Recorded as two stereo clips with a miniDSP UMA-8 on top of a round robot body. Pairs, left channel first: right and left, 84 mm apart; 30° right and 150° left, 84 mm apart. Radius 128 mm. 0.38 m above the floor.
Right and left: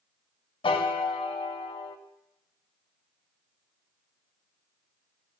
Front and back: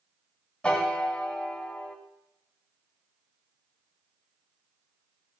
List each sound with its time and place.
0.6 s a piano: 110° right, 0.6 m